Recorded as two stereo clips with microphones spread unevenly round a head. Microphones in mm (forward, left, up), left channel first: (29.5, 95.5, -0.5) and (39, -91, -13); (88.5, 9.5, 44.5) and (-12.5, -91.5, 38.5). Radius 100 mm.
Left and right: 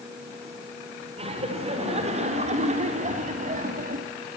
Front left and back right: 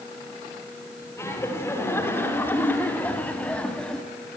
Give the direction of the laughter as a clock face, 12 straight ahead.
1 o'clock.